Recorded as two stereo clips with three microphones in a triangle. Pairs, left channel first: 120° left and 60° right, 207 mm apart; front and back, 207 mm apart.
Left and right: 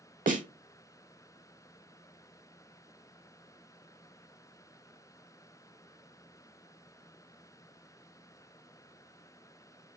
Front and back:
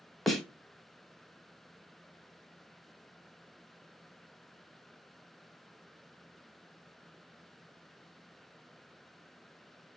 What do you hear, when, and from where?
0.3 s a snare drum: 90° right, 0.7 m